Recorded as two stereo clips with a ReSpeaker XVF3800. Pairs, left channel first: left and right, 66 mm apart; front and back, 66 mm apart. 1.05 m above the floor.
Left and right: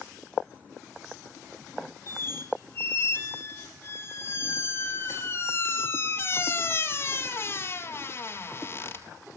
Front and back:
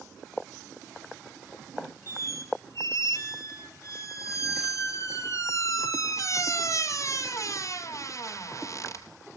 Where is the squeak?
35° left, 3.5 m.